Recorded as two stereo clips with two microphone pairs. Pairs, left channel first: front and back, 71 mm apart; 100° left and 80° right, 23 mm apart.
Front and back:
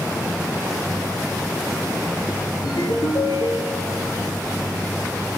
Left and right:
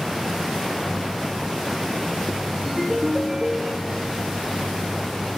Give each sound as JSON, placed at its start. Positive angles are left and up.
{"t": 2.6, "sound": "a ringtone", "azimuth_deg": -5, "distance_m": 4.5}